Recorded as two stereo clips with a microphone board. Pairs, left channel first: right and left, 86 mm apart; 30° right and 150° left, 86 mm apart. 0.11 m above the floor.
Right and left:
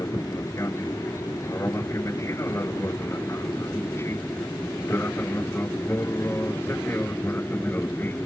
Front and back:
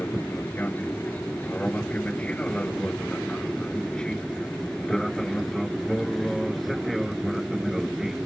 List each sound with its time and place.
0.0 s an aircraft: 85° right; by 8.3 s 130° right